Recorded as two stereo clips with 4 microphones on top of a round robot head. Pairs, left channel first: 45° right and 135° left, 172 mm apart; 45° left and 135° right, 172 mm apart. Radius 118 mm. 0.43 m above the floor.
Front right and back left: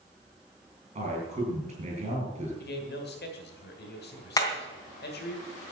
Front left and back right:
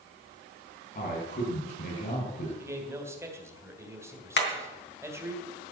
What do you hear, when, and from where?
0.9 s a man speaking: 85° left, 7.5 m
2.6 s a man speaking: 65° right, 3 m
4.4 s hammering: 30° left, 3 m